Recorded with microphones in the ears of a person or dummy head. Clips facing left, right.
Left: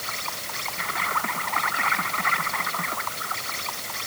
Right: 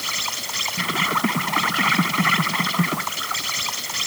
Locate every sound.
0.0 s an insect: 40° right (ahead or behind)